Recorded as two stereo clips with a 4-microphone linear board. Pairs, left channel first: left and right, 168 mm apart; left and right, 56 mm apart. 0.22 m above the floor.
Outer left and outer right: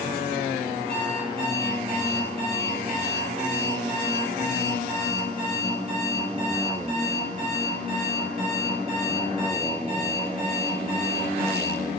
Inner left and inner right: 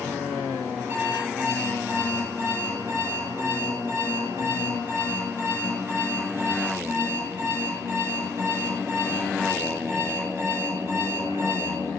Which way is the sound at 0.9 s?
40° right (ahead or behind).